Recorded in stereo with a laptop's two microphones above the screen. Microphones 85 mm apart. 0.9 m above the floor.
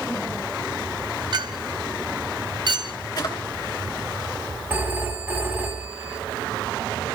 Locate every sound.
1.3 s a clink: 55° right (ahead or behind), 0.6 m
3.2 s a drawer: 55° left (ahead or behind), 2.5 m
4.7 s a phone ringing: 20° right (ahead or behind), 4 m